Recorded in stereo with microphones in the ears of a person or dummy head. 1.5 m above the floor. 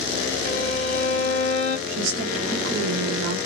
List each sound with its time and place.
0.5 s a violin: 45° left (ahead or behind), 0.8 m
1.9 s a woman speaking: 65° right (ahead or behind), 1.1 m